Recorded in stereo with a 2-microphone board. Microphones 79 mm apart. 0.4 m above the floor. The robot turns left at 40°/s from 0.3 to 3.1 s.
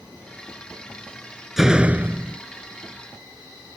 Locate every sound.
1.6 s a door slam: 5° right; by 2.4 s 35° right